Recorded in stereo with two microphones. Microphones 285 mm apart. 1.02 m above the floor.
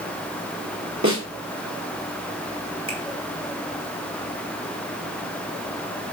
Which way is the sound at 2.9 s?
50° right (ahead or behind).